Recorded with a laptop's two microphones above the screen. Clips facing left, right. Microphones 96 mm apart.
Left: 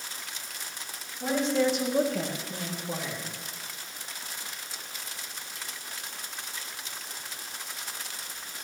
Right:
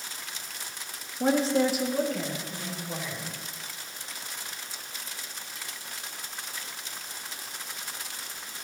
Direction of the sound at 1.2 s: 50° right (ahead or behind).